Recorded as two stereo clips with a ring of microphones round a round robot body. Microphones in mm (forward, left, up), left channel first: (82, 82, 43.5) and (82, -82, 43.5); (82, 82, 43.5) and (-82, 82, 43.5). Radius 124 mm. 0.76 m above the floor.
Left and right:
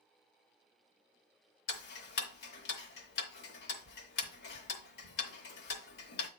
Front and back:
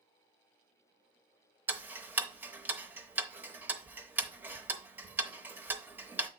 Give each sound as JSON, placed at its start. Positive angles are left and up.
{"t": 1.7, "sound": "ticking", "azimuth_deg": 100, "distance_m": 0.8}